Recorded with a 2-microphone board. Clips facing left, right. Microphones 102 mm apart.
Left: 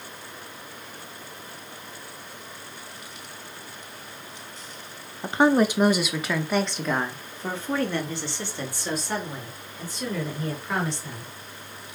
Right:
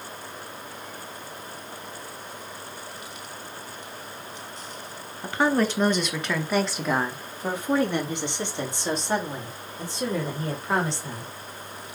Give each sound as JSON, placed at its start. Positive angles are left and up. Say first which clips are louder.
{"t": 5.2, "sound": "a woman speaking", "louder": "left 3 dB", "side_deg": 25, "distance_m": 1.2}